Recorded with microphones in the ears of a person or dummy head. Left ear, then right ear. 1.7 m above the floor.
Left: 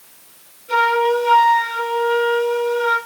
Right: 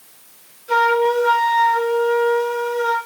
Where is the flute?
40° right (ahead or behind), 4 m.